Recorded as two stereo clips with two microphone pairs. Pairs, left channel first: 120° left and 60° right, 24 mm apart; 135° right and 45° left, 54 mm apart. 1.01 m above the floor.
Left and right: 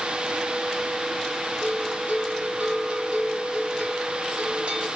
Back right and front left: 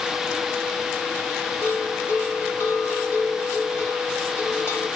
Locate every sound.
1.6 s a bell: 100° right, 2 m